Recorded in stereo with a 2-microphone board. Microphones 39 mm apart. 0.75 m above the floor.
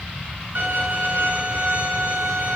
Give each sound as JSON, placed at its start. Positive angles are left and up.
{"t": 0.6, "sound": "a violin", "side_deg": -40, "distance_m": 9.0}